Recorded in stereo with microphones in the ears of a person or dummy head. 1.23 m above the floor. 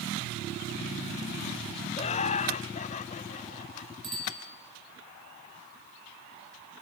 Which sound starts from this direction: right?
A bicycle bell, at 4.0 s.